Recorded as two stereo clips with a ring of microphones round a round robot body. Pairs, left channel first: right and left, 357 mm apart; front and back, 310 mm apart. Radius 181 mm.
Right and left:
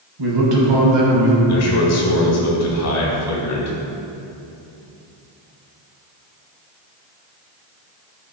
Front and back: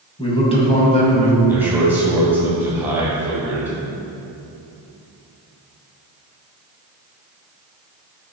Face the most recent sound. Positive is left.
turn(degrees=-100)